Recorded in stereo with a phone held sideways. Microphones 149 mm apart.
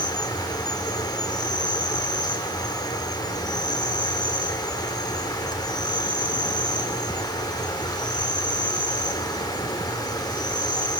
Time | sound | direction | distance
0.0 | an insect | 25° left (ahead or behind) | 3.5 m